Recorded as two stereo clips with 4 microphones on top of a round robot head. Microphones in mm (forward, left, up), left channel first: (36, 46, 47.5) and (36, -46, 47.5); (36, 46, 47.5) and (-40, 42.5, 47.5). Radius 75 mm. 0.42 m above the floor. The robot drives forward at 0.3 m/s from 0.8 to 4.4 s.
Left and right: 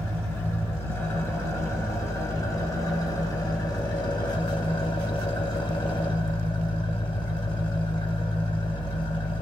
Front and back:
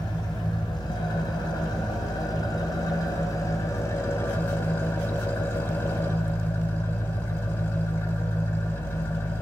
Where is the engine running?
25° left, 1.8 m; by 9.4 s 60° left, 1.0 m.